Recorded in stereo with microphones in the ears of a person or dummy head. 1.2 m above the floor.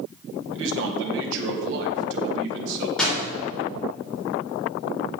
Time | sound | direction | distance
0.5 | a man speaking | 70° right (ahead or behind) | 1.7 m
3.0 | a door slam | 5° left (ahead or behind) | 3.5 m